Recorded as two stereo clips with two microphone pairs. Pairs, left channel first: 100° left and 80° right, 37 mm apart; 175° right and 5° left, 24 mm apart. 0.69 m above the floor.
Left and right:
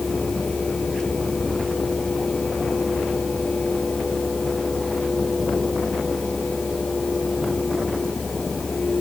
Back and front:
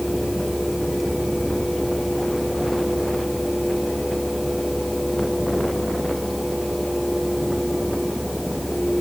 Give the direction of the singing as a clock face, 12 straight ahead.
I don't hear singing.